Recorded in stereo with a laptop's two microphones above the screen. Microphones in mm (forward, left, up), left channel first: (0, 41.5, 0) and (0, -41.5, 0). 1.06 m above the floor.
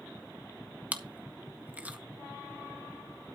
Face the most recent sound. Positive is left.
turn(degrees=-20)  # may be behind; listen again after turning